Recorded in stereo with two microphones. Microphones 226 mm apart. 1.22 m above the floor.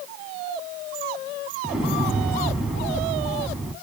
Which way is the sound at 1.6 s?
5° right (ahead or behind).